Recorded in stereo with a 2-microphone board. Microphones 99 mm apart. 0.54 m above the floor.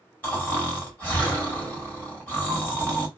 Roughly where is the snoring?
Centre.